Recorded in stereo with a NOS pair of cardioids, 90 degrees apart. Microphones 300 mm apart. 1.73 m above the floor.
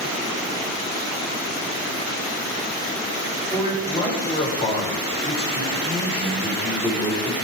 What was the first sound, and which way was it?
A man speaking, 20° left.